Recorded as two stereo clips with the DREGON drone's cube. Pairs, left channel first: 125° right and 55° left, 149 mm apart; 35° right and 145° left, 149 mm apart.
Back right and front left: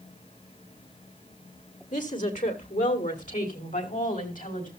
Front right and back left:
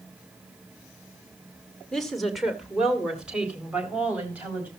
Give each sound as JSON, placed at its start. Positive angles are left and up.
{"t": 1.9, "sound": "a woman speaking", "azimuth_deg": -120, "distance_m": 2.0}